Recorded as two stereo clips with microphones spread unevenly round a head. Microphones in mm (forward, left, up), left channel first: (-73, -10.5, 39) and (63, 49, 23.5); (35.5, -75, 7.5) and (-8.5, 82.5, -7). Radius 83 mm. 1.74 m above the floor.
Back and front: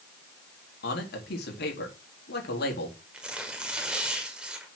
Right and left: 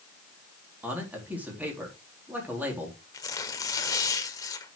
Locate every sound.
0.8 s a man speaking: 170° right, 4 m
3.1 s tearing paper: 65° right, 1.5 m